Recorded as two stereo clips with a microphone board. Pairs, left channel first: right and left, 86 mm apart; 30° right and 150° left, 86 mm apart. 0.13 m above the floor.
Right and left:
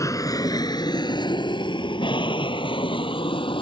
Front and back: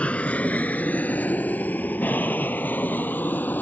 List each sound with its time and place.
0.0 s an aircraft: 95° right; by 3.6 s 100° right